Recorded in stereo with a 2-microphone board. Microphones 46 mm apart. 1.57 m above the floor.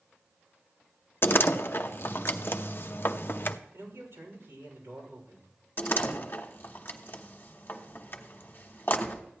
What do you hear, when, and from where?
1.2 s a door slam: 50° left (ahead or behind), 0.6 m
3.7 s a man speaking: 65° right (ahead or behind), 6.5 m
5.8 s a door slam: 45° left (ahead or behind), 1.2 m